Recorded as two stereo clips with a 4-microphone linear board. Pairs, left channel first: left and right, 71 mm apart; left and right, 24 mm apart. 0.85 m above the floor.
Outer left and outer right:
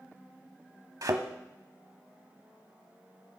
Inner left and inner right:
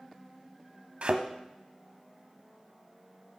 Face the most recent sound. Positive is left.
turn(degrees=-55)  # may be behind; listen again after turning